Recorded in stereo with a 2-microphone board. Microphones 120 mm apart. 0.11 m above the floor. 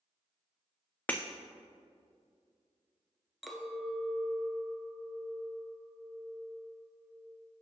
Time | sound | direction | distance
1.1 | breaking glass | 15° left (ahead or behind) | 0.6 m
3.4 | a clink | centre (ahead or behind) | 0.8 m